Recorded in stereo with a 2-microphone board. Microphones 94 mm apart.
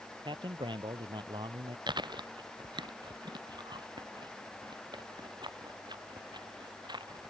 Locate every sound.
0.2 s a man speaking: 60° right (ahead or behind)
1.9 s chewing: 50° right (ahead or behind)